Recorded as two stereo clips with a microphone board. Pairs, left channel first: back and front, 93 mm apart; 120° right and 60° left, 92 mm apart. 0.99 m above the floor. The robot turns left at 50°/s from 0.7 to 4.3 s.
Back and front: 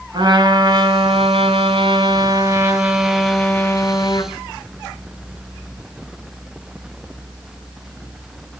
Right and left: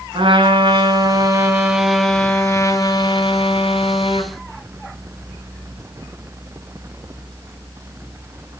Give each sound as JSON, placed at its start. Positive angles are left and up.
{"t": 0.1, "sound": "a trumpet", "azimuth_deg": 30, "distance_m": 4.5}